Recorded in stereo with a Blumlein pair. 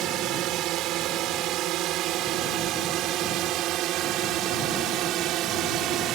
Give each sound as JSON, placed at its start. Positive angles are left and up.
{"t": 0.0, "sound": "a drone", "azimuth_deg": -35}